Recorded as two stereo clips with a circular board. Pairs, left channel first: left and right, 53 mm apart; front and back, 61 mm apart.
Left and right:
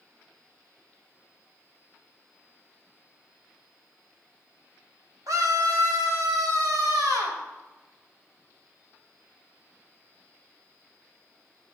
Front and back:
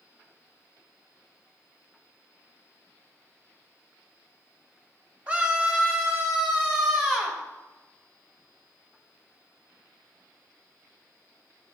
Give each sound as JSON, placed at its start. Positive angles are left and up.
{"t": 5.3, "sound": "a scream", "azimuth_deg": -105, "distance_m": 4.0}